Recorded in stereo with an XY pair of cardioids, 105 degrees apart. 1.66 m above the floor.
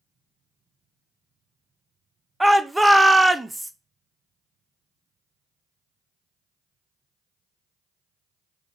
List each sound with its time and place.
2.4 s a shout: 10° right, 0.6 m